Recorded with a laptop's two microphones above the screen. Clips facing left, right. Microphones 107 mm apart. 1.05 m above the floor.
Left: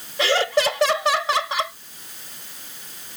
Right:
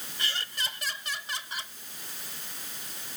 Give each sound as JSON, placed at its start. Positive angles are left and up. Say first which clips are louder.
{"t": 0.2, "sound": "laughter", "louder": "left 19 dB", "side_deg": 85}